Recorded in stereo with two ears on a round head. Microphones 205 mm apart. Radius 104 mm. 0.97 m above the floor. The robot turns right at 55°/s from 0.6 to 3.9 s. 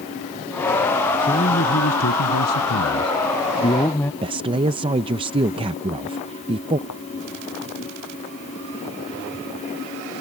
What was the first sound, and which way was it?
A man speaking, 20° left.